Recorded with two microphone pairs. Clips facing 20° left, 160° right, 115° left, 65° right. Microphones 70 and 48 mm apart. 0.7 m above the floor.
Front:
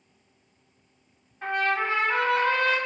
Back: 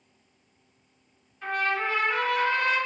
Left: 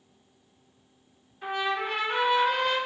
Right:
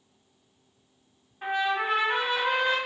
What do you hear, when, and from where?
1.4 s a trumpet: 25° right, 1.1 m